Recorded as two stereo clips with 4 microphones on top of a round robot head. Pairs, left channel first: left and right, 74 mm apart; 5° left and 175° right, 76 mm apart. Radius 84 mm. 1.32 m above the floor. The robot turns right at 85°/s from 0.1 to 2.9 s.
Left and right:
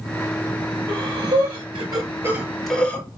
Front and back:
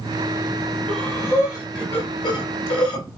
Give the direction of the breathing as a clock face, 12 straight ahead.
5 o'clock.